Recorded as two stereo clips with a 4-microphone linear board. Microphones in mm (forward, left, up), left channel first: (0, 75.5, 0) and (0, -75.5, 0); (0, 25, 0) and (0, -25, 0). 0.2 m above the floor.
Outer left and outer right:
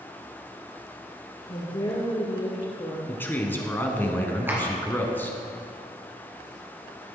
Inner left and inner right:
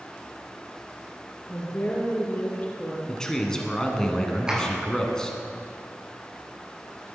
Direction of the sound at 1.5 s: 30° left (ahead or behind).